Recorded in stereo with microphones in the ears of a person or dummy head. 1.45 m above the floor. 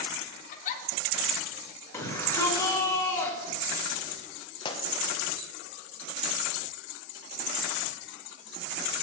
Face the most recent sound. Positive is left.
turn(degrees=30)  # may be behind; listen again after turning